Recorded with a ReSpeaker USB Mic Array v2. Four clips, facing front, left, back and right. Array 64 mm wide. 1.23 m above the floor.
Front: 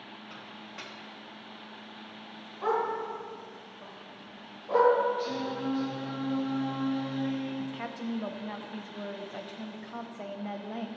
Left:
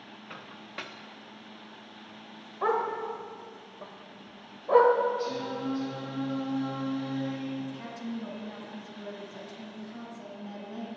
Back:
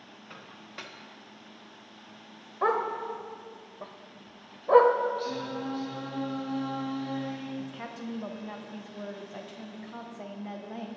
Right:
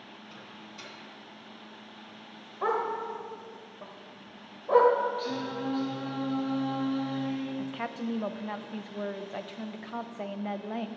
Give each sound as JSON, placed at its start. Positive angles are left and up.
{"t": 0.3, "sound": "a microwave", "azimuth_deg": 100, "distance_m": 0.9}
{"t": 2.6, "sound": "a dog barking", "azimuth_deg": 175, "distance_m": 1.3}
{"t": 5.2, "sound": "singing", "azimuth_deg": -95, "distance_m": 4.0}
{"t": 7.6, "sound": "a woman speaking", "azimuth_deg": -85, "distance_m": 0.8}